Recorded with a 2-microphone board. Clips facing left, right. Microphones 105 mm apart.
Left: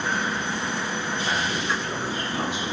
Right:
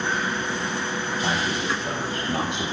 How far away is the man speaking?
About 6 m.